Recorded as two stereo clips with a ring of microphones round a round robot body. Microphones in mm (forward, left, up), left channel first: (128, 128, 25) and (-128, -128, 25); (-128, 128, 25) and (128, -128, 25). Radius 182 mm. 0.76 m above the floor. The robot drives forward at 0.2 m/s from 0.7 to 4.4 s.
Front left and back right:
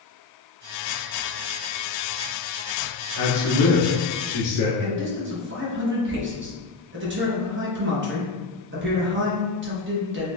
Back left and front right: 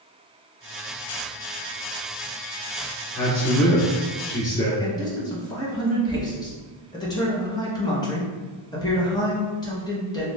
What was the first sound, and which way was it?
A man speaking, 60° left.